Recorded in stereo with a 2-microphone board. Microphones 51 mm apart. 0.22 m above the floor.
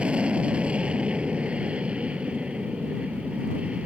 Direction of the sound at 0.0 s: 20° right (ahead or behind).